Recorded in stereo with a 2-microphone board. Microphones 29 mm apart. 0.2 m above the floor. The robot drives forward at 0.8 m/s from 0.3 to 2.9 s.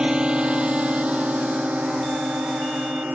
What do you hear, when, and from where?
0.0 s a drone: 25° right (ahead or behind); by 3.1 s 65° right (ahead or behind)